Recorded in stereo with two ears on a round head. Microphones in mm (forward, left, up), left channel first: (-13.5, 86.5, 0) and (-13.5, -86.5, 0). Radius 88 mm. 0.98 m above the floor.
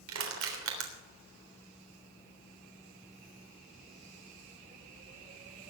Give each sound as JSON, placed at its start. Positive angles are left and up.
{"t": 0.1, "sound": "crushing", "side_deg": -75, "distance_m": 3.5}